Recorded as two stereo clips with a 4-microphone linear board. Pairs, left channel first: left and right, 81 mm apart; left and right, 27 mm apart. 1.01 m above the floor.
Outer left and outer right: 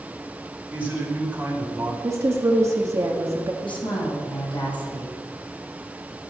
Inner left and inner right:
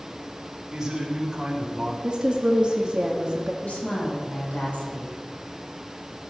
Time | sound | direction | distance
0.7 | a man speaking | 20° right (ahead or behind) | 4.5 m
2.0 | a woman speaking | 40° right (ahead or behind) | 1.7 m
3.6 | a woman speaking | 80° left | 7 m